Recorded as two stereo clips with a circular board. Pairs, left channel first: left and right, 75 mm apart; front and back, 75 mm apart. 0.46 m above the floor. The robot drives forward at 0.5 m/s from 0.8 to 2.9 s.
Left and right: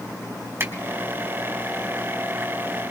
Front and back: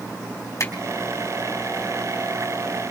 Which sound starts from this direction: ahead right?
A finger snap, at 0.6 s.